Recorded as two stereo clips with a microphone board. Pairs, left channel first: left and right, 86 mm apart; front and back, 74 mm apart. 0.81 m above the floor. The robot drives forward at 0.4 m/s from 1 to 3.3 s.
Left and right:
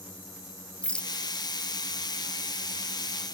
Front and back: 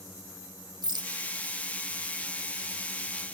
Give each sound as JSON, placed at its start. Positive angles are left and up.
{"t": 0.8, "sound": "a rattle", "azimuth_deg": 165, "distance_m": 1.2}